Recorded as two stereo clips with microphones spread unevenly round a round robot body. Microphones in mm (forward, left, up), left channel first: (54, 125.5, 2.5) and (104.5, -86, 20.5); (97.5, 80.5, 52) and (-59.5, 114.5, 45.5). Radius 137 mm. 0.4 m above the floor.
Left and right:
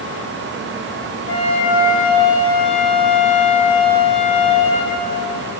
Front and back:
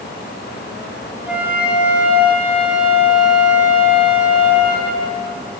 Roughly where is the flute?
Left.